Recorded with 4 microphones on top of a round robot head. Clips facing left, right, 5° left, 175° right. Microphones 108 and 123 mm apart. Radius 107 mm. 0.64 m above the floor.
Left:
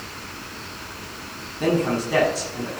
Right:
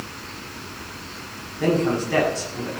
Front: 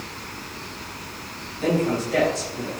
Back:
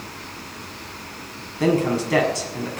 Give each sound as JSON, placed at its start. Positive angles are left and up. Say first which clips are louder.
{"t": 1.6, "sound": "a man speaking", "louder": "right 1 dB, back 3 dB", "azimuth_deg": 170, "distance_m": 6.5}